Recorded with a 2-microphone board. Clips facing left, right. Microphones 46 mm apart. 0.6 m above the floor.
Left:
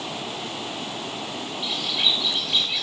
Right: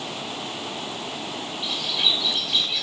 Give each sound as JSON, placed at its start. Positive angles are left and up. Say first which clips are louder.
{"t": 1.6, "sound": "a bird", "louder": "even", "side_deg": 10, "distance_m": 1.7}